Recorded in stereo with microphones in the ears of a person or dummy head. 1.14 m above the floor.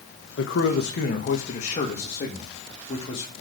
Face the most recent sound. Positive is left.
turn(degrees=25)  # may be behind; listen again after turning